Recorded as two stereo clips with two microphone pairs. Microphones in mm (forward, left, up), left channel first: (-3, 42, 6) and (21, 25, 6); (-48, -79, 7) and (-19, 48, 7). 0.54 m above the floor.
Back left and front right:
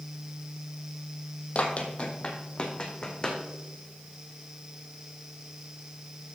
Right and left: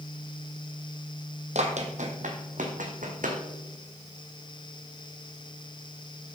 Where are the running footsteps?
105° left, 1.4 m; by 3.4 s 85° left, 2.5 m.